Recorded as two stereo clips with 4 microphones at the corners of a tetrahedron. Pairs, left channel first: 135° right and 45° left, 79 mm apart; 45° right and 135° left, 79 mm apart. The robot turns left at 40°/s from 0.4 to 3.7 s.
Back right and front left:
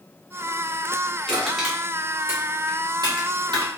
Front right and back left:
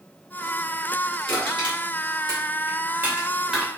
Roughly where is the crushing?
Behind left.